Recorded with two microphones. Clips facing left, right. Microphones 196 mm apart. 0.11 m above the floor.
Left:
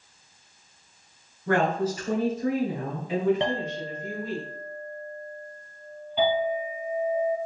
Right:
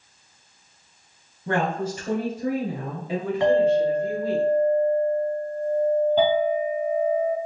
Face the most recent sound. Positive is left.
turn(degrees=-40)  # may be behind; listen again after turning